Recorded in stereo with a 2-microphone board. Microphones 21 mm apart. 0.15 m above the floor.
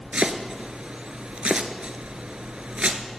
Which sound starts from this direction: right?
Chopping, at 0.1 s.